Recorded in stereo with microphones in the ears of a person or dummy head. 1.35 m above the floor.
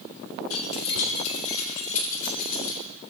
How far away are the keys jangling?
About 3 m.